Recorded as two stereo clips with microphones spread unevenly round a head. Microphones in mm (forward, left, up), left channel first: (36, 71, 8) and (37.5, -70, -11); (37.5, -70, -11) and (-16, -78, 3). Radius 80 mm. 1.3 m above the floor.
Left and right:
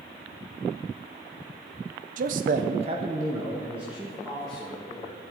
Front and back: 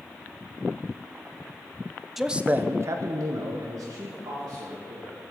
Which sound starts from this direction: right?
A man speaking, at 2.2 s.